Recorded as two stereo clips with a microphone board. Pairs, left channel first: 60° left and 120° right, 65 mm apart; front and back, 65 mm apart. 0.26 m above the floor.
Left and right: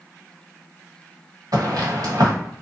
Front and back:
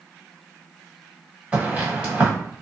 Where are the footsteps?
110° right, 1.5 m.